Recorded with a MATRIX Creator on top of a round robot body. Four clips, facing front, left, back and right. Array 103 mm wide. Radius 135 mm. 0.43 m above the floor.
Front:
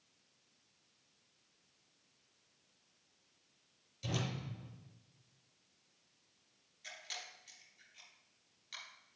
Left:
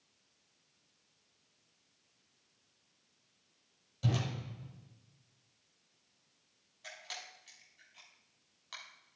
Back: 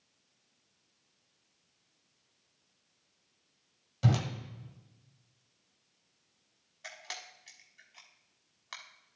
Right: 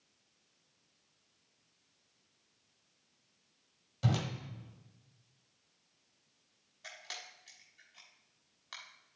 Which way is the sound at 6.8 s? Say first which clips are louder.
Left 1 dB, back 5 dB; 175° right.